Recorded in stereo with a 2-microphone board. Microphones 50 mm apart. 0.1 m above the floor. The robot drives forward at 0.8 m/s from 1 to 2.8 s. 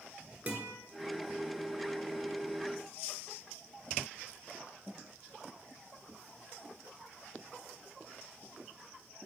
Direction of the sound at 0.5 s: 30° right (ahead or behind).